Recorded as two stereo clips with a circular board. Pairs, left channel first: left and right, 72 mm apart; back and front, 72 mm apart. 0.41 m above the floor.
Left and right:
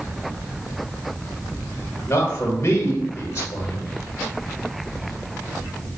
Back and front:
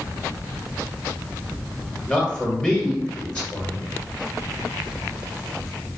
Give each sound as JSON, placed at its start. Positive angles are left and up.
{"t": 2.1, "sound": "a man speaking", "azimuth_deg": 115, "distance_m": 1.3}